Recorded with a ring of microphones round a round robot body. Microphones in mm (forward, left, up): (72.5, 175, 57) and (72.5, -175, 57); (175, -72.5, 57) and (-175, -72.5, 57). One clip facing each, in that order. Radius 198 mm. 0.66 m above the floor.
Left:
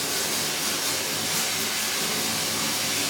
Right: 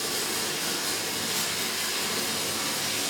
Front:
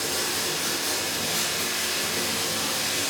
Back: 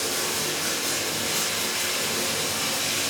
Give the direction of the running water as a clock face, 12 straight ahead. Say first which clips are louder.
Left 1 dB, back 1 dB; 10 o'clock.